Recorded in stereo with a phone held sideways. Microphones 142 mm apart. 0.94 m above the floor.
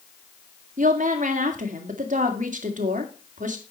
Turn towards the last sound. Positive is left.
turn(degrees=-65)  # may be behind; listen again after turning